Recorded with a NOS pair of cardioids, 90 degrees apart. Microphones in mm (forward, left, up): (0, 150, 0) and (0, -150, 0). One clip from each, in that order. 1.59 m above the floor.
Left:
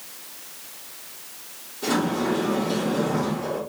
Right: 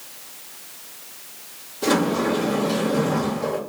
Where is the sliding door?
40° right, 1.0 m.